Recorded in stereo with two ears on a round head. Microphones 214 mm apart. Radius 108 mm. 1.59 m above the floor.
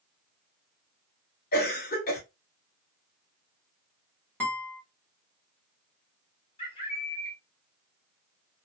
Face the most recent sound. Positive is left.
turn(degrees=20)  # may be behind; listen again after turning